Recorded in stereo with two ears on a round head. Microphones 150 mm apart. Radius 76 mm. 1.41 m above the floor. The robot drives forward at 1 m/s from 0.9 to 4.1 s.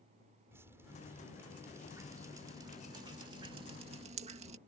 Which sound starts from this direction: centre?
Dripping, at 0.5 s.